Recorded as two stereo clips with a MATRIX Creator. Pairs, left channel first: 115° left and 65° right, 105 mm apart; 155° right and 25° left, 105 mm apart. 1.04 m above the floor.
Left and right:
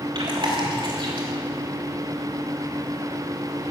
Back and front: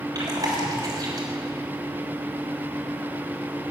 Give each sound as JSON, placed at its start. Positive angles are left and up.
{"t": 0.1, "sound": "chewing", "azimuth_deg": -30, "distance_m": 3.0}